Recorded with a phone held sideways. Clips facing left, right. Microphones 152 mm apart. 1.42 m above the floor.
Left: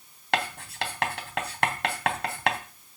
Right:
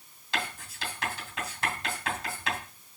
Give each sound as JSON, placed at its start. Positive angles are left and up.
{"t": 0.3, "sound": "writing", "side_deg": 70, "distance_m": 3.0}